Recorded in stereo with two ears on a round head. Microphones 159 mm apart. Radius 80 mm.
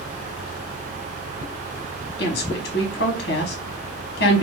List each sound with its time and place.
2.2 s a woman speaking: 60° left (ahead or behind), 0.9 m